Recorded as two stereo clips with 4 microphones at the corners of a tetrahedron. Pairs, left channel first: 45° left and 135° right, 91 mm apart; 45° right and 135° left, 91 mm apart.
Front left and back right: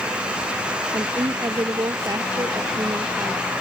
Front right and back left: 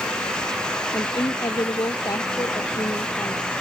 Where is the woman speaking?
90° right.